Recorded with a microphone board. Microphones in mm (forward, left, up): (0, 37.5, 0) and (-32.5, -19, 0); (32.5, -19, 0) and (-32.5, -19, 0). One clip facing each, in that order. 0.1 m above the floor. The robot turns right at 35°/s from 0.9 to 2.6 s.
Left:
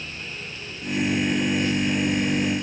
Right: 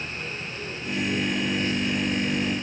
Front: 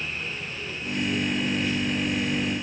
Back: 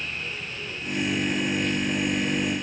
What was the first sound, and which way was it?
Only background noise.